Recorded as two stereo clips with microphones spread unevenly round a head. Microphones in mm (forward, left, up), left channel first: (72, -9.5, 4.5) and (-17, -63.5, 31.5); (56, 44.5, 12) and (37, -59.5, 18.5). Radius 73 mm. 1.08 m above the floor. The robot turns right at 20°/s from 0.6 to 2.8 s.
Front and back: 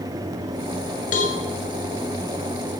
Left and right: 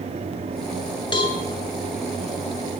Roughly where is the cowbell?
Ahead left.